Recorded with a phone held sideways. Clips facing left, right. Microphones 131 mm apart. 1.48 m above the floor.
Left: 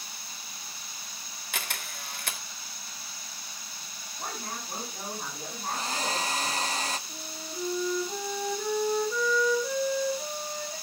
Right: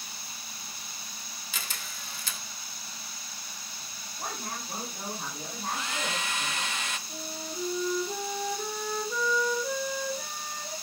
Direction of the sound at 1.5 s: 65° left (ahead or behind).